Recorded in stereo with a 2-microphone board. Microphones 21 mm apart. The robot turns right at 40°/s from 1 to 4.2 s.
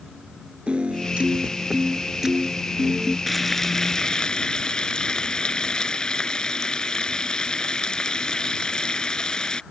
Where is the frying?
10° left; by 9.6 s 45° left.